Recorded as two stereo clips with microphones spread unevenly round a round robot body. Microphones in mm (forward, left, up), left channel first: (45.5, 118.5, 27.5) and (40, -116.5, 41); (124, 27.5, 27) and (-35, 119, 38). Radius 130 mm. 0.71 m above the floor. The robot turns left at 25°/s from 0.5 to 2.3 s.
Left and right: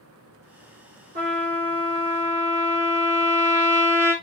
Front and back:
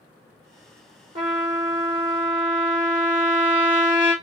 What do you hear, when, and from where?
1.1 s a trumpet: 145° right, 1.6 m; by 4.1 s 175° right, 1.6 m